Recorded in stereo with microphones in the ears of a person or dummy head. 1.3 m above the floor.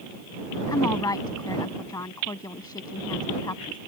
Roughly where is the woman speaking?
Centre.